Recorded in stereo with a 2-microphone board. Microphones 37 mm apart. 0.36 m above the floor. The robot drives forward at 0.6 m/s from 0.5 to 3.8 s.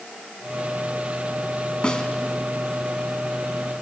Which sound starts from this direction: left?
A snare drum, at 1.8 s.